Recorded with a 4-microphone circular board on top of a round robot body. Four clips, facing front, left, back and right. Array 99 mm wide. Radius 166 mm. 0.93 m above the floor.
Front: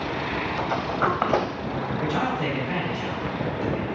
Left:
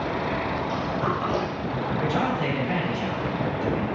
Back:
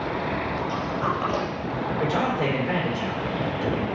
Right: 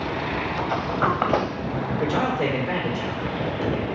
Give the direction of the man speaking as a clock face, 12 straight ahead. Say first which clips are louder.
Right 3 dB, back 2 dB; 5 o'clock.